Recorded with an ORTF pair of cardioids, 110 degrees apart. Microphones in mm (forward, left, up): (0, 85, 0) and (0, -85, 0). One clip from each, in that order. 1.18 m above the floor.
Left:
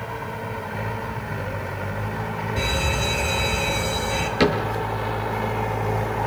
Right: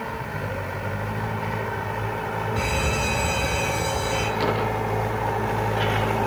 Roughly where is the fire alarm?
Ahead.